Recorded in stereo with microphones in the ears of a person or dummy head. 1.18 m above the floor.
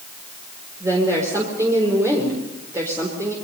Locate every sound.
0.8 s a woman speaking: 15° right (ahead or behind), 4 m